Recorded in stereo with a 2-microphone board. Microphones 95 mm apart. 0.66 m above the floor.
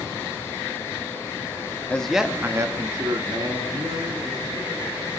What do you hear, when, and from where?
1.9 s a man speaking: 10° left (ahead or behind), 1.1 m; by 5.1 s 55° right (ahead or behind), 4 m